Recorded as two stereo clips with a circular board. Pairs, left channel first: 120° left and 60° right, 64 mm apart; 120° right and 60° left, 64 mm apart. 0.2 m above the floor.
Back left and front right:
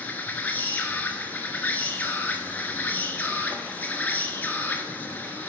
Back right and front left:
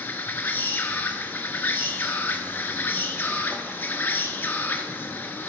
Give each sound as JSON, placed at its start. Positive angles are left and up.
{"t": 0.0, "sound": "an insect", "azimuth_deg": -175, "distance_m": 0.9}